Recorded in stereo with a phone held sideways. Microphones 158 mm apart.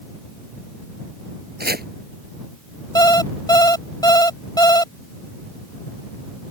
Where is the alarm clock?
25° left (ahead or behind).